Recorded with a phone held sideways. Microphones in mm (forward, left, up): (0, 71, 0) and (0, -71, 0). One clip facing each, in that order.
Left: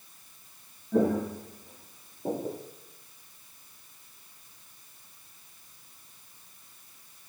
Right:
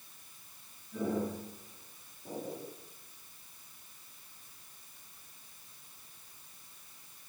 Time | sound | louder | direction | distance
0.9 | footsteps | left 8 dB | 70° left (ahead or behind) | 5 m